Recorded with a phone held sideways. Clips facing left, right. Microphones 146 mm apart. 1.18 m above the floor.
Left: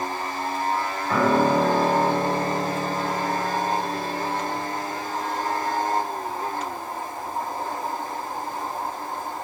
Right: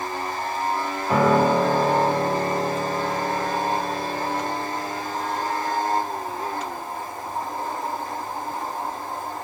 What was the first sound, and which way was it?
A piano, 20° right (ahead or behind).